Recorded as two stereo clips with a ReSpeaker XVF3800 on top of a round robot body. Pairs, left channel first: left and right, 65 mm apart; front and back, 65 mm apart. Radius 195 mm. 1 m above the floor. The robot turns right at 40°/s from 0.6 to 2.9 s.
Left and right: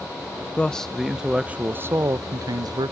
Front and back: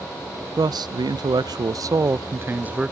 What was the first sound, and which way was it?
A man speaking, 165° left.